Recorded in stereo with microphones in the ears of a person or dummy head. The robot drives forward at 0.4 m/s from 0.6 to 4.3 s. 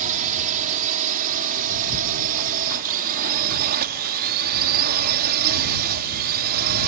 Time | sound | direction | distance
0.0 | a drone | 45° right (ahead or behind) | ?